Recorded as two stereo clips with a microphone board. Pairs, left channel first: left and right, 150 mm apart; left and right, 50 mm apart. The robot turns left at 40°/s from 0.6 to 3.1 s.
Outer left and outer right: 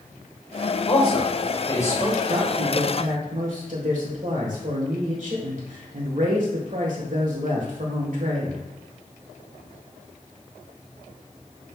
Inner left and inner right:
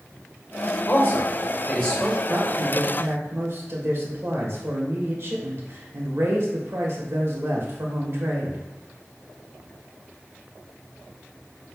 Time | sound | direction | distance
0.9 | a man speaking | 45° left (ahead or behind) | 2.0 m
2.3 | a woman speaking | 55° right | 1.6 m